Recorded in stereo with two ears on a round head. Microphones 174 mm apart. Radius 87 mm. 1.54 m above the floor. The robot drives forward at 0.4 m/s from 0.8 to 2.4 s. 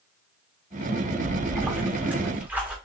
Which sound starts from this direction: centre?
A splash, at 1.2 s.